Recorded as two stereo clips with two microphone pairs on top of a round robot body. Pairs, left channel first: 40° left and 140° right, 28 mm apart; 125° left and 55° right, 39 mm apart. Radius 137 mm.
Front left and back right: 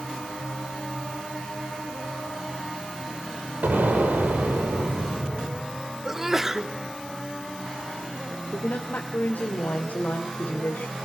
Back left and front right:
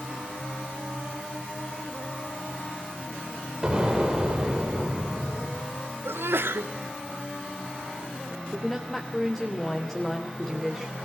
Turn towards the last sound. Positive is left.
turn(degrees=40)